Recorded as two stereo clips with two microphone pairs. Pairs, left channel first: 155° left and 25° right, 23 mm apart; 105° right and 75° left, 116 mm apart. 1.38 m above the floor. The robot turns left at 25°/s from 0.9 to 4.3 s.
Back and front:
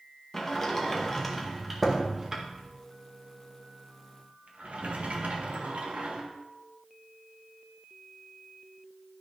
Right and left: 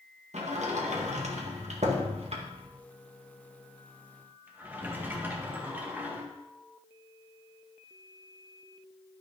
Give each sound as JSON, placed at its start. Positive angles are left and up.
{"t": 0.3, "sound": "a sliding door", "azimuth_deg": 85, "distance_m": 1.7}